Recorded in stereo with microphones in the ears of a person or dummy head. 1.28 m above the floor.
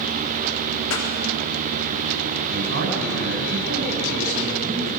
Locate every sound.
0.9 s a pop: 80° left, 3.5 m
2.5 s a man speaking: 80° right, 8 m